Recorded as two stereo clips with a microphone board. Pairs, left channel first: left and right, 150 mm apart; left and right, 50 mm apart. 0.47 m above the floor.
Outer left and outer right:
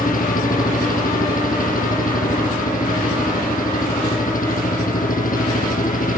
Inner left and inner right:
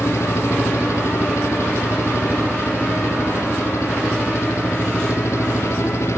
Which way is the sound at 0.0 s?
65° left (ahead or behind).